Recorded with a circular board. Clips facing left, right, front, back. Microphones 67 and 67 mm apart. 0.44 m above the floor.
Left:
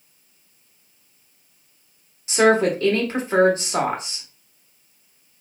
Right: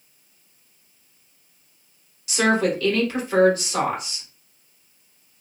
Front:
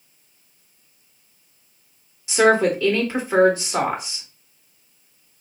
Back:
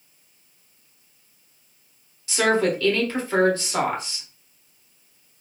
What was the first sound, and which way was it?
A woman speaking, 60° left.